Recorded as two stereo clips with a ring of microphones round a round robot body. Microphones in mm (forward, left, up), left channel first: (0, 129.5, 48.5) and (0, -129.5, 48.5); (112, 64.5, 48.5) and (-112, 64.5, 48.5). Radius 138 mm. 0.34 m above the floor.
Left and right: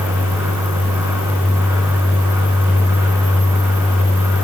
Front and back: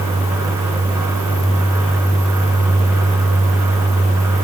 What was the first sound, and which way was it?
Only background noise.